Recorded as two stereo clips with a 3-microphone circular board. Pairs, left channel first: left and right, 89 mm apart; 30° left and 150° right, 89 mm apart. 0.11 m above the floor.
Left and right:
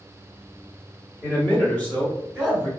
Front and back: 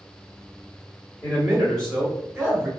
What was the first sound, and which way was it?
A man speaking, 65° left.